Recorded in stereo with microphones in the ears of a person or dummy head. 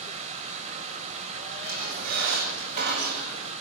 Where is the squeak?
55° right (ahead or behind), 9 m.